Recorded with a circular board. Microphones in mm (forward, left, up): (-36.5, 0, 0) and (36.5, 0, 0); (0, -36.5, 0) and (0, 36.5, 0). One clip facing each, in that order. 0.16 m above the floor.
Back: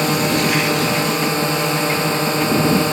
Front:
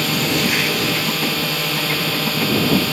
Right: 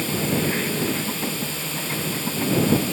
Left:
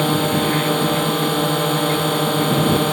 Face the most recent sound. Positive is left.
turn(degrees=115)